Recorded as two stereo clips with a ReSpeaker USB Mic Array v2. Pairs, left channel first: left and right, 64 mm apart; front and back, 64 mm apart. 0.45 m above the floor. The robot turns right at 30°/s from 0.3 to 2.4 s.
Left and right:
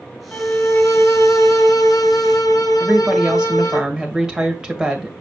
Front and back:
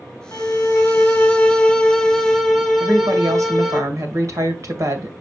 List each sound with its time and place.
0.3 s a violin: 35° left, 2.5 m; by 3.8 s 95° left, 2.5 m
2.8 s a woman speaking: 165° right, 2 m